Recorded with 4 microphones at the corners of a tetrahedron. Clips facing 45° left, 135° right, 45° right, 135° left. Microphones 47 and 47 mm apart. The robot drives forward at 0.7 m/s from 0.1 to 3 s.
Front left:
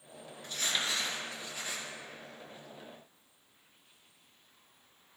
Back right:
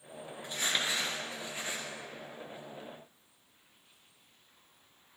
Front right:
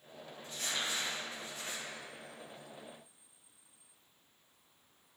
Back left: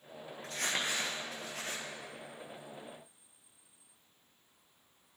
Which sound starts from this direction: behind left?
Crumpling, at 0.4 s.